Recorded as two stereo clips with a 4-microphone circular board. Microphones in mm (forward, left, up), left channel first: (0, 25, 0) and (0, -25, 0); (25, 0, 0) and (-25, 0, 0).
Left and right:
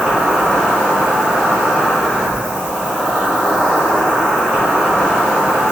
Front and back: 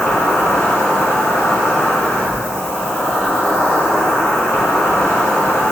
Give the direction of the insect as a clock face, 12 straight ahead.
1 o'clock.